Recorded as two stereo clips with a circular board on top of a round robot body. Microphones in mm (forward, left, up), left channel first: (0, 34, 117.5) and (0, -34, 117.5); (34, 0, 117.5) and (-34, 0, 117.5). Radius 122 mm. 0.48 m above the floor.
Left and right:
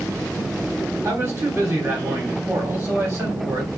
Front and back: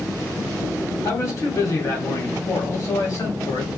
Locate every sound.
1.0 s a man speaking: 30° right, 2 m